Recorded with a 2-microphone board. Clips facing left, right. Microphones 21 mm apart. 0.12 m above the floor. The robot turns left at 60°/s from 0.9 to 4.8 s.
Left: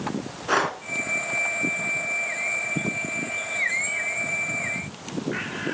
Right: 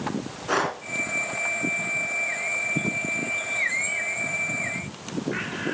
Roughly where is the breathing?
Centre.